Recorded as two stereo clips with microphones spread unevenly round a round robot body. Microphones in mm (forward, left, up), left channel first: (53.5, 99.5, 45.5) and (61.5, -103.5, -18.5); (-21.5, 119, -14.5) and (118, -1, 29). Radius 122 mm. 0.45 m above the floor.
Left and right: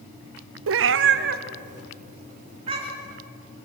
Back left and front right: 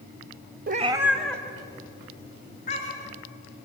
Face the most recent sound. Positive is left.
turn(degrees=-160)